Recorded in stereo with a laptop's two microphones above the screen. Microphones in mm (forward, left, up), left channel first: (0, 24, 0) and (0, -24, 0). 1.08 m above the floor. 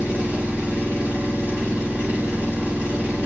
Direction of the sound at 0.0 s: 30° right (ahead or behind).